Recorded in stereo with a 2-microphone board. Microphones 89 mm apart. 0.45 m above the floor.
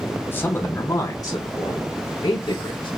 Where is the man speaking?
25° left (ahead or behind), 0.9 m; by 2.9 s 65° left (ahead or behind), 2.0 m.